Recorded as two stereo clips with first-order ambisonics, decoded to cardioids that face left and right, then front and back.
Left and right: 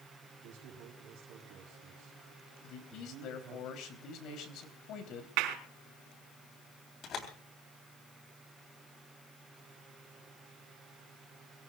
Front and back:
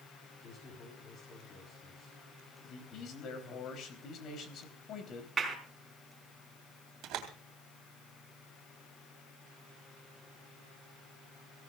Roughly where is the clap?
Right.